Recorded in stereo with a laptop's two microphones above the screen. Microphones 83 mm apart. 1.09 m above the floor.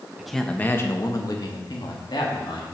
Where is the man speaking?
5° right (ahead or behind), 0.7 m; by 2.7 s 70° left (ahead or behind), 2 m.